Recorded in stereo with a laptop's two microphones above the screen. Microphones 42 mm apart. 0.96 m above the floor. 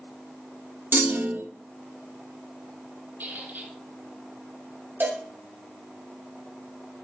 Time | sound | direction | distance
0.9 | a clunk | 60° right (ahead or behind) | 0.7 m
3.2 | a squeak | 55° right (ahead or behind) | 1.9 m
5.0 | a cowbell | 55° right (ahead or behind) | 2.5 m